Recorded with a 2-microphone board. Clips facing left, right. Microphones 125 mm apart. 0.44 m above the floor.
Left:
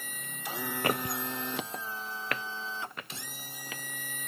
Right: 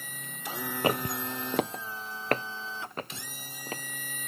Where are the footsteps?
20° right (ahead or behind); by 3.8 s 35° right (ahead or behind).